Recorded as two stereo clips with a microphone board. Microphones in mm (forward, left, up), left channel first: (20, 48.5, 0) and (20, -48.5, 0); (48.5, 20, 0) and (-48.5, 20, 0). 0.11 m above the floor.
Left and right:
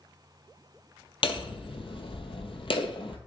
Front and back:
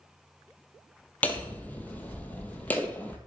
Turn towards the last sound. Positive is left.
turn(degrees=75)